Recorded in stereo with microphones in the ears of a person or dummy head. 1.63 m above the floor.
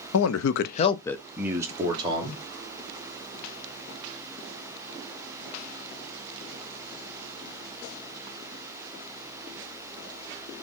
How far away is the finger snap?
No finger snap in this recording.